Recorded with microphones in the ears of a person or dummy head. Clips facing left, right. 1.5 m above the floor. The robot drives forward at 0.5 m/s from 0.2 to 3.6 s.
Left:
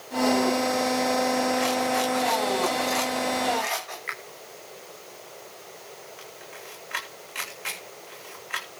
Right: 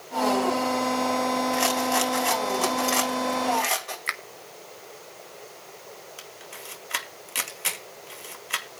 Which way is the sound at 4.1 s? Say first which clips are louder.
Right 1 dB; 60° right (ahead or behind).